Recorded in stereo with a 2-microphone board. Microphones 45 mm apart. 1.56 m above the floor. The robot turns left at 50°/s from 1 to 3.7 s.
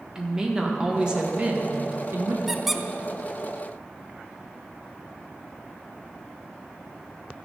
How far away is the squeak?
About 0.5 m.